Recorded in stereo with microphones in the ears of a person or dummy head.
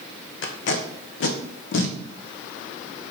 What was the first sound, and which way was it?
Tape being pulled, 65° left (ahead or behind).